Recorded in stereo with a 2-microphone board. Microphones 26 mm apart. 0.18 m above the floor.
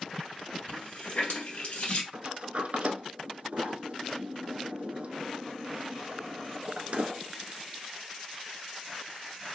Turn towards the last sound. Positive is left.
turn(degrees=-60)  # may be behind; listen again after turning